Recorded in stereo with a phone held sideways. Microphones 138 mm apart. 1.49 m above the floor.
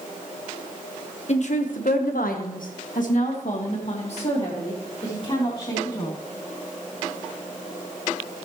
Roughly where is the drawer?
No drawer in this recording.